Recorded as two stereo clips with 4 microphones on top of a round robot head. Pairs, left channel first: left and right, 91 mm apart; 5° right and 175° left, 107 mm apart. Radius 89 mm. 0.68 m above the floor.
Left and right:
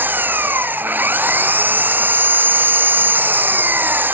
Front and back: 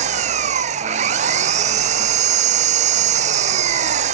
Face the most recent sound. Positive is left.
turn(degrees=-160)